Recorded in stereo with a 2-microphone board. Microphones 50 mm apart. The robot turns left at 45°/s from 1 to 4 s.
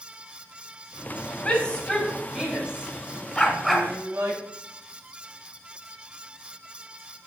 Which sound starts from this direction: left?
A shout, at 1.4 s.